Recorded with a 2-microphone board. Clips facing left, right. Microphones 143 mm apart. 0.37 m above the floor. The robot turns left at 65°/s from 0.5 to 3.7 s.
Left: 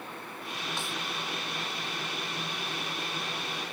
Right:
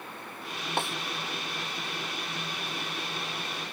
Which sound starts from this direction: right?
A snare drum, at 0.8 s.